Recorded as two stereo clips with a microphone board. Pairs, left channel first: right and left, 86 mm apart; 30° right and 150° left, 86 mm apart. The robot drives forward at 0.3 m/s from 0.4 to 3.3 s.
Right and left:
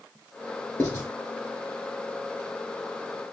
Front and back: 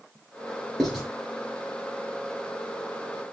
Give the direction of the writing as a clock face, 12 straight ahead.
4 o'clock.